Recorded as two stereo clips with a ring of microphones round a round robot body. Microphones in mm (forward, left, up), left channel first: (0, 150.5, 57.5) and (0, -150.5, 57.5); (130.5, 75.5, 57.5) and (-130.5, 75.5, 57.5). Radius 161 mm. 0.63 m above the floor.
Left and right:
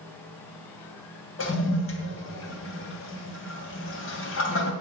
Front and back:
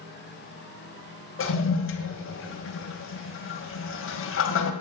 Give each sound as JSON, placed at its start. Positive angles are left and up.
{"t": 1.4, "sound": "a toilet flushing", "azimuth_deg": 40, "distance_m": 2.5}